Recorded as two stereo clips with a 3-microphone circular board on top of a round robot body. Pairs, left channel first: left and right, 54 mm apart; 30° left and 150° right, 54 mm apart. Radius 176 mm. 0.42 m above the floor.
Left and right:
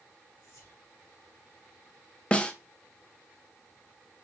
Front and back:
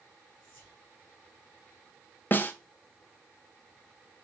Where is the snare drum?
35° left, 0.9 m.